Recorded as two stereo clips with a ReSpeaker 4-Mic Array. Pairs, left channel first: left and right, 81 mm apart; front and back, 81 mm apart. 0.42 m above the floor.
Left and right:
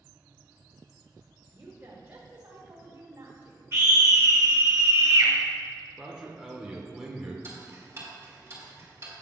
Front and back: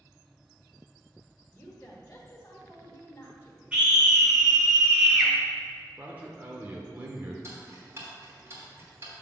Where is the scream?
115° right, 1.1 m.